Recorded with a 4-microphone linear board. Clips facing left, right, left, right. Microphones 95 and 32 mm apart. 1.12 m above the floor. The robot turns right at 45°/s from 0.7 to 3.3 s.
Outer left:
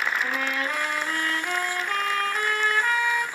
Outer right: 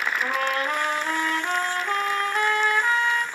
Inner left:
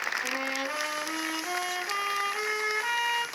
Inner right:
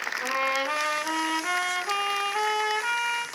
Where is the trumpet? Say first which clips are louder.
Outer right 3 dB, inner right 5 dB; 105° right, 1.3 m; by 3.2 s 10° left, 1.3 m.